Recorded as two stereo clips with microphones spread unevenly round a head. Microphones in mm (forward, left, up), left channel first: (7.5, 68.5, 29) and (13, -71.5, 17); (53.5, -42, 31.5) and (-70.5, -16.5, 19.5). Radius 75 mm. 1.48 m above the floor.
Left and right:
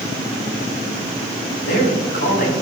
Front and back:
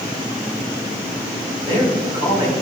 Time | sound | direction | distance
1.6 | a man speaking | 105° left | 5.5 m